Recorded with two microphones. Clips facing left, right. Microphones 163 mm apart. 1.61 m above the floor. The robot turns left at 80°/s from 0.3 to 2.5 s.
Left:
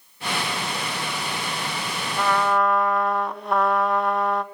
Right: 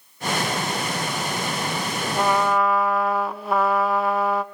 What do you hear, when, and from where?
2.1 s a trumpet: 30° right (ahead or behind), 1.0 m; by 4.4 s centre (ahead or behind), 1.0 m